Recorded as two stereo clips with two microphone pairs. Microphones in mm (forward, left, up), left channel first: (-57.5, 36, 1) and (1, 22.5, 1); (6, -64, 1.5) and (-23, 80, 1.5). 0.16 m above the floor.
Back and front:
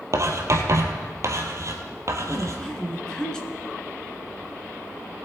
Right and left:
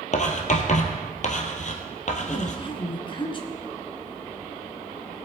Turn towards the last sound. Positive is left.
turn(degrees=-120)